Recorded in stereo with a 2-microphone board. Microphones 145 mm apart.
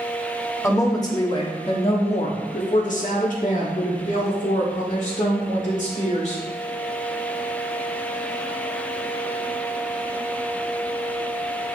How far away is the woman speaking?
About 1.4 m.